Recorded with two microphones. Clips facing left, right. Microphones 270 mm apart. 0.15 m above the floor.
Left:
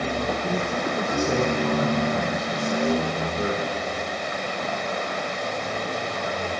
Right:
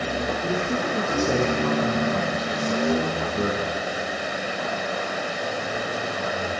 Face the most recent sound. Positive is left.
turn(degrees=-75)  # may be behind; listen again after turning